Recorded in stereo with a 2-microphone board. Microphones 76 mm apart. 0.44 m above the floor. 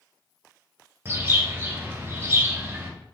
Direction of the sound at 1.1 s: 30° right (ahead or behind).